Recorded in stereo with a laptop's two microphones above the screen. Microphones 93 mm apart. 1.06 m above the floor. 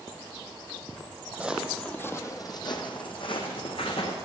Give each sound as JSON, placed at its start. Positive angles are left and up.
{"t": 1.3, "sound": "footsteps", "side_deg": -15, "distance_m": 1.5}